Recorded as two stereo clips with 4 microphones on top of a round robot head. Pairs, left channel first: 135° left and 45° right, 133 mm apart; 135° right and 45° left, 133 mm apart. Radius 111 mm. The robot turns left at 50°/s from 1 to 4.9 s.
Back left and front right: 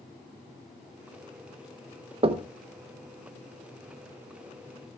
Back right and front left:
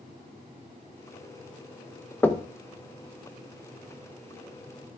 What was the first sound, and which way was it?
Knocking, 65° right.